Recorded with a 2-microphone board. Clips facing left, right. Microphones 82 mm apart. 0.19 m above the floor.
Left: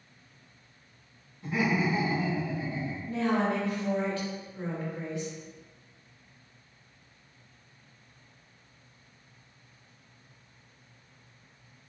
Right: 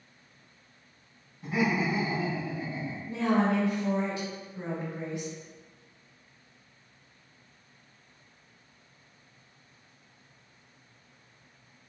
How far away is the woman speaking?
About 1.2 m.